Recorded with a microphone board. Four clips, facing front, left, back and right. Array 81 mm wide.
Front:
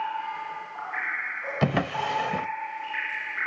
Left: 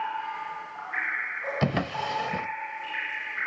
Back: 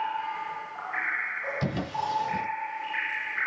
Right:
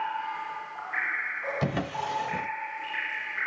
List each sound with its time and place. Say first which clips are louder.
1.6 s a drawer: left 3 dB, front 6 dB; 15° left, 0.7 m